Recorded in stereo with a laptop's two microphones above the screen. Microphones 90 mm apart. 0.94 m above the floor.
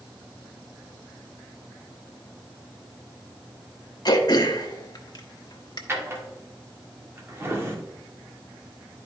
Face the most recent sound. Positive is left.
turn(degrees=-30)  # may be behind; listen again after turning